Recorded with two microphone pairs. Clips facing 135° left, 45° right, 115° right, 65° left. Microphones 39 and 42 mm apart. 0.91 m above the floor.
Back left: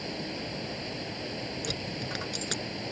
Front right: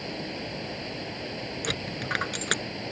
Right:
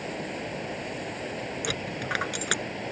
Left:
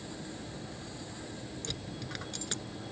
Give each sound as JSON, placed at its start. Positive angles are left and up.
{"t": 0.0, "sound": "running water", "azimuth_deg": -125}
{"t": 1.6, "sound": "a dropped coin", "azimuth_deg": -85}